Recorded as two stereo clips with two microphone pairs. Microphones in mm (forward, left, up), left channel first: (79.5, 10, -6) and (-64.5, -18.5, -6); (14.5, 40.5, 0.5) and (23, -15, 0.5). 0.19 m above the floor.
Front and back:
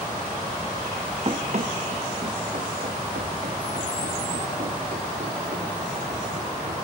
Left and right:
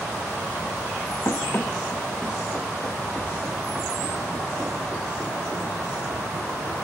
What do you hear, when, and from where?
1.2 s running footsteps: 140° left, 1.8 m; by 6.8 s 140° right, 8.5 m